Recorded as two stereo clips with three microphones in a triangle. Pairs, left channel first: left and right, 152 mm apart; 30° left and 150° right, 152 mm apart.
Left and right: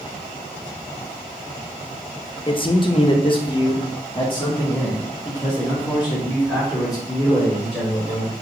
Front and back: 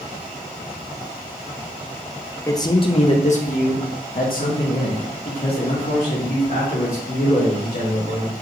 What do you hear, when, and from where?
2.5 s a man speaking: 80° left, 0.6 m; by 8.3 s 25° left, 3 m